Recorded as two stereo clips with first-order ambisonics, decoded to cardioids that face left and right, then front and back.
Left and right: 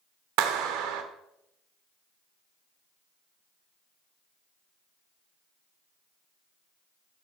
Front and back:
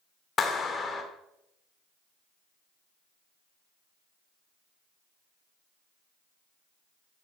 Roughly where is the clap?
Right.